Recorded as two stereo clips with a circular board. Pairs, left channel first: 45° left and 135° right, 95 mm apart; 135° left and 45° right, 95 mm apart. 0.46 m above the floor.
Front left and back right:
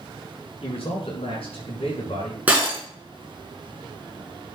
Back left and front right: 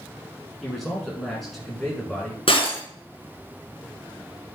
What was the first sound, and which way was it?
A man speaking, 45° left.